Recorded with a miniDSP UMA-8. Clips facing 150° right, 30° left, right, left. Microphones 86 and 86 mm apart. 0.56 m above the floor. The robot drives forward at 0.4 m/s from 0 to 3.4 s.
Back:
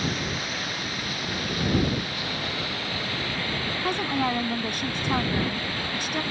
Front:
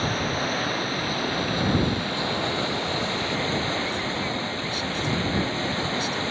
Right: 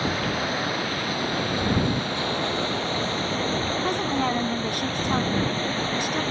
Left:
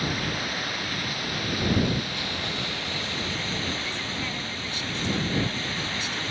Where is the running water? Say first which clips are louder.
Front 4 dB, right 4 dB; 25° right; by 6.3 s 35° right.